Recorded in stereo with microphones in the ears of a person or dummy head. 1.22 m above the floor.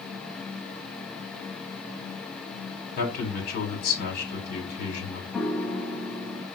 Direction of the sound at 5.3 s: 5° left (ahead or behind).